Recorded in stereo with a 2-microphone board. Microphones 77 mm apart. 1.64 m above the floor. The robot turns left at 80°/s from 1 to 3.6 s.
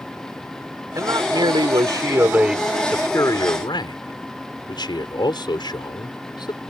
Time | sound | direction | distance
0.9 | a man speaking | 45° right | ?